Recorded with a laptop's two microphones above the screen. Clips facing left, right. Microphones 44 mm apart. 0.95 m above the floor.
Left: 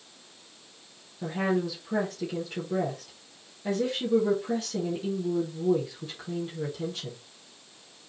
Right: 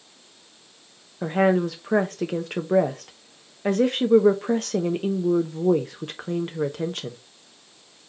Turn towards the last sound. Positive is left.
turn(degrees=-50)  # may be behind; listen again after turning